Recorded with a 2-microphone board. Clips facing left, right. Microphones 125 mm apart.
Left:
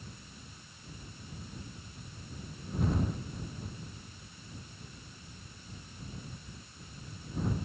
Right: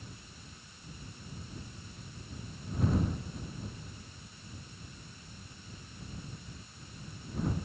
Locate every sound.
Only background noise.